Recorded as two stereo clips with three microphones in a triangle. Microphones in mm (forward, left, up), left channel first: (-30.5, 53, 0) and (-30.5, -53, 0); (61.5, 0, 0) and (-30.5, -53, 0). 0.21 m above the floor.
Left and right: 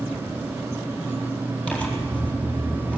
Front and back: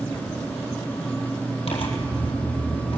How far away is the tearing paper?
About 4 m.